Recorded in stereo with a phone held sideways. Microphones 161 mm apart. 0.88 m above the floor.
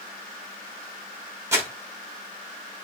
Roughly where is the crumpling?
Centre.